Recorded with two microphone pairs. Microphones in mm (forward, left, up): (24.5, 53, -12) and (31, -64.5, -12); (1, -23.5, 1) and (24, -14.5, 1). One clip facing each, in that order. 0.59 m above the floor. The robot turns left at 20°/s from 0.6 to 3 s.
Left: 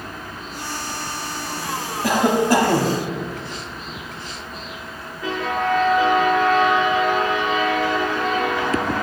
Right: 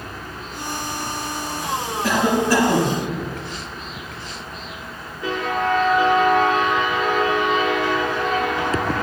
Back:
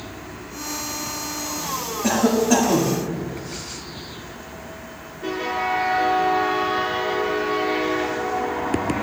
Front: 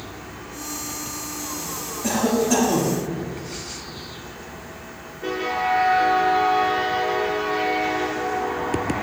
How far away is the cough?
About 0.9 m.